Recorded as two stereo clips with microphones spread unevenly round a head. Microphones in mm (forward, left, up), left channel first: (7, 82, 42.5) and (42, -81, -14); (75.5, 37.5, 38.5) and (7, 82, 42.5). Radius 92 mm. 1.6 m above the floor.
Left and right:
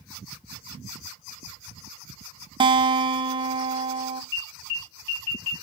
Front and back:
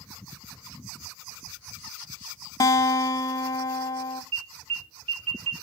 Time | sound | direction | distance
2.6 | a guitar | 5° right | 0.5 m
4.3 | an alarm | 175° left | 4.5 m